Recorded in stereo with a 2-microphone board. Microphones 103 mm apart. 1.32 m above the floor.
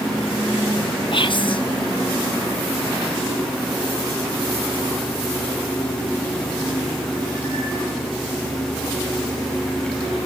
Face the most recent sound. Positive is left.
turn(degrees=55)  # may be behind; listen again after turning